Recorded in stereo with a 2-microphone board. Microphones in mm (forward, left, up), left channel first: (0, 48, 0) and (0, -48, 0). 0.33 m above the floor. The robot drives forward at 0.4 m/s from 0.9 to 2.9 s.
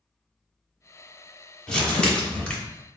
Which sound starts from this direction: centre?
Crumpling, at 1.7 s.